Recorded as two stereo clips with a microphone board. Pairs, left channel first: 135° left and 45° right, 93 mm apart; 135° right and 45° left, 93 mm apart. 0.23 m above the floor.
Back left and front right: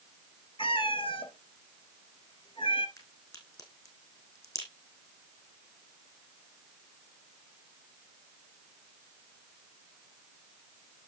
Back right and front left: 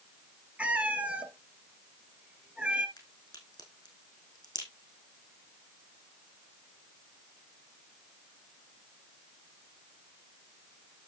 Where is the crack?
Straight behind, 4 m.